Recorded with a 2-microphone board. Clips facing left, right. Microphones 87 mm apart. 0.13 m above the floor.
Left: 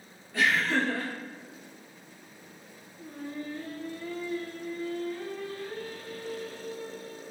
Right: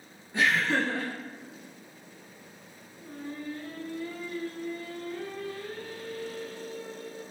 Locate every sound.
0.3 s laughter: 20° right (ahead or behind), 1.1 m
3.0 s singing: 5° left (ahead or behind), 0.9 m